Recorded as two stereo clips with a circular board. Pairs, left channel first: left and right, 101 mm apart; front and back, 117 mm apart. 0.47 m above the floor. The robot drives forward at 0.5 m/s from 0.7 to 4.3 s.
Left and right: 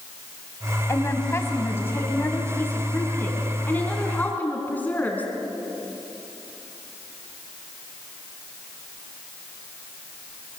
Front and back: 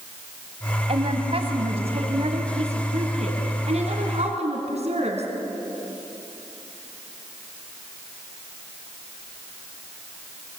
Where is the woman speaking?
150° left, 2.5 m; by 5.3 s 160° left, 4 m.